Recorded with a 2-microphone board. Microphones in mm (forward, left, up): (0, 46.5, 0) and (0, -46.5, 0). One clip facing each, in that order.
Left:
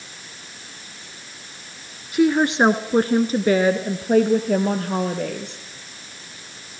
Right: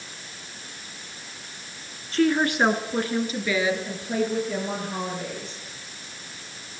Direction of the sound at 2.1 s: 10° left (ahead or behind).